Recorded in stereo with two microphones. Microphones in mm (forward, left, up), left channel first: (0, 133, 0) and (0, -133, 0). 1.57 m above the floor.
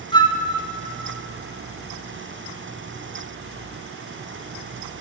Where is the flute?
15° left (ahead or behind), 1.2 m.